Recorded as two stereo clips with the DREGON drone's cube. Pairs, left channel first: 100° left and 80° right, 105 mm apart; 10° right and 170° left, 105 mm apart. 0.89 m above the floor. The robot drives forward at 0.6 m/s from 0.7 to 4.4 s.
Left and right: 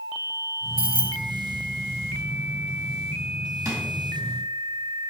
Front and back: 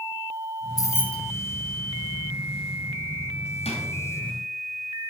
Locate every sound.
0.8 s keys jangling: 65° right, 0.5 m; by 1.2 s 100° right, 0.5 m
3.6 s a drawer: 15° right, 2.0 m; by 3.8 s 20° right, 1.9 m